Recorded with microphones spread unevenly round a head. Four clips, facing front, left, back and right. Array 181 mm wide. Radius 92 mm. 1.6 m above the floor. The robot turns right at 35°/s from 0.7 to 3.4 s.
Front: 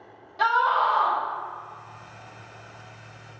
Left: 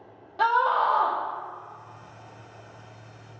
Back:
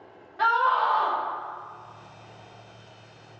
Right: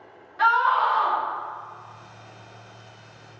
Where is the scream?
90° left, 0.6 m; by 1.2 s 105° left, 0.6 m.